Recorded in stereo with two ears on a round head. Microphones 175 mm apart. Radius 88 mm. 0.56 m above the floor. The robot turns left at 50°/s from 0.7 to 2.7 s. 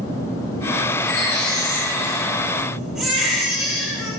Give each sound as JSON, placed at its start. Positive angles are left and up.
{"t": 1.0, "sound": "a baby crying", "azimuth_deg": 80, "distance_m": 8.5}